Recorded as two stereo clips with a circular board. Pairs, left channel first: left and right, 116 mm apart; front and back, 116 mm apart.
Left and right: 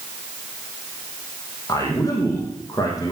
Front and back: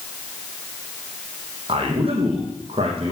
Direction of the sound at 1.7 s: 150° left.